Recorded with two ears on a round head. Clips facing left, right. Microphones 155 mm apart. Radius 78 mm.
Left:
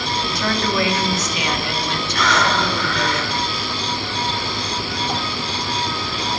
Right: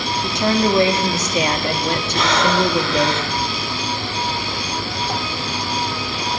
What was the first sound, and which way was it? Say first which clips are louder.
A woman speaking: right 7 dB; 20° right (ahead or behind).